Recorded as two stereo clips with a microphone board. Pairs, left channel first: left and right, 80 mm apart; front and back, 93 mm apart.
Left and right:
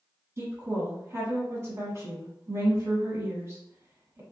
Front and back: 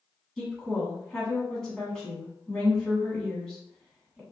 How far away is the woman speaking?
About 1.4 m.